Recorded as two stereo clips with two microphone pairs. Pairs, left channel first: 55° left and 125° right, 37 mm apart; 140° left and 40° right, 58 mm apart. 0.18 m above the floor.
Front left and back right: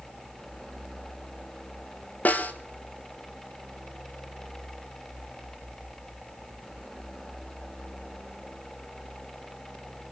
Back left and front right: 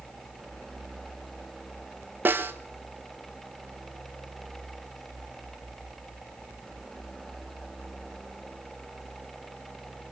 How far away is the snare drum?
About 1.0 m.